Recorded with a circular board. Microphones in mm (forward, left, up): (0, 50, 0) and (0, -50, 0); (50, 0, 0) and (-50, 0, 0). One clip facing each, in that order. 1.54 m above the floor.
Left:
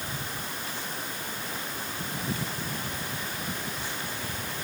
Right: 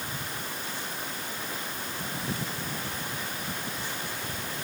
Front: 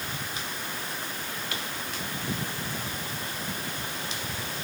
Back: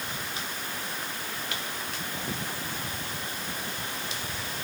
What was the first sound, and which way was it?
Only background noise.